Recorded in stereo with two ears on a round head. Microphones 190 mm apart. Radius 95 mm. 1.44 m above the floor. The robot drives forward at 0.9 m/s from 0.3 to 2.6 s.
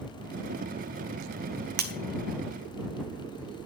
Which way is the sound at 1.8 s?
50° right (ahead or behind).